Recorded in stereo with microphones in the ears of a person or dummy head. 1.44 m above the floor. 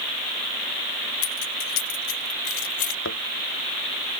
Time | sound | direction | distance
1.2 | keys jangling | 80° left | ?
3.0 | a thud | 80° left | ?